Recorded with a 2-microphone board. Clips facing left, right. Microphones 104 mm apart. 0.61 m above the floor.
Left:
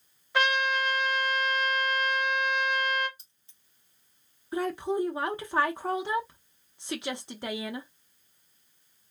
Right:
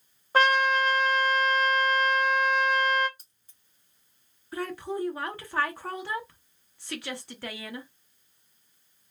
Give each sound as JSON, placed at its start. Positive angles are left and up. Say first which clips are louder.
{"t": 0.3, "sound": "a trumpet", "louder": "right 4 dB", "side_deg": -40, "distance_m": 0.8}
{"t": 3.2, "sound": "keys jangling", "louder": "right 1 dB", "side_deg": -45, "distance_m": 1.1}
{"t": 4.5, "sound": "a woman speaking", "louder": "left 4 dB", "side_deg": 20, "distance_m": 0.5}